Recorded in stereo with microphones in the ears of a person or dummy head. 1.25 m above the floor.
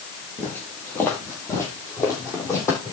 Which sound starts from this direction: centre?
Footsteps, at 0.4 s.